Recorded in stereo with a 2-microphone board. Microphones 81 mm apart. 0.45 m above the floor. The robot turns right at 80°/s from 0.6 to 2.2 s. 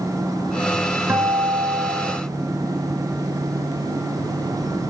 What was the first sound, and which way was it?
A guitar, 150° right.